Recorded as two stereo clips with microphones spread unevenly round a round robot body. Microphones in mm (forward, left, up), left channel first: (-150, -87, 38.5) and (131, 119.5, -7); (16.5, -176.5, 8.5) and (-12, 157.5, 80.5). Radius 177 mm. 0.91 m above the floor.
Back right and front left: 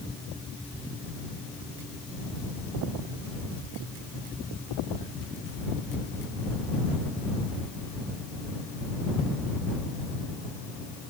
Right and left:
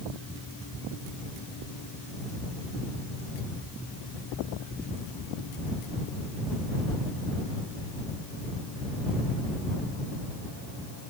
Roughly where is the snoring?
I don't hear snoring.